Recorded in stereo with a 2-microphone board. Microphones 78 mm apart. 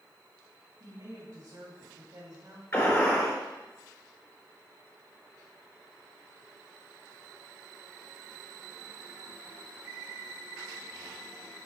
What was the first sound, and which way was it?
A woman speaking, 50° right (ahead or behind).